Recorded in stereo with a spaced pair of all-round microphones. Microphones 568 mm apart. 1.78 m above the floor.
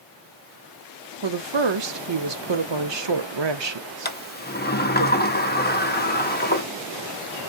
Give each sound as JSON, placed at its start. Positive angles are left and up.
{"t": 1.2, "sound": "a woman speaking", "side_deg": -50, "distance_m": 0.7}
{"t": 4.0, "sound": "a sliding door", "side_deg": 20, "distance_m": 0.6}